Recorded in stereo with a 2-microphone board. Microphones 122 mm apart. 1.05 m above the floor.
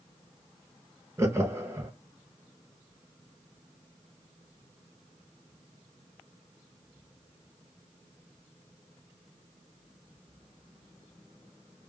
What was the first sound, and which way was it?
Laughter, 20° right (ahead or behind).